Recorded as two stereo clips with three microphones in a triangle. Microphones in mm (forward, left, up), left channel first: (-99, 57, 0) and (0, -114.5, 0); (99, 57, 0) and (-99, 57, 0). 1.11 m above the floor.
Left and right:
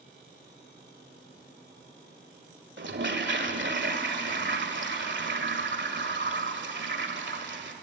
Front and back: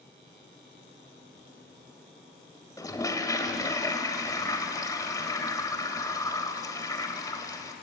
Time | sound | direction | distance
2.8 | a toilet flushing | 70° right | 1.8 m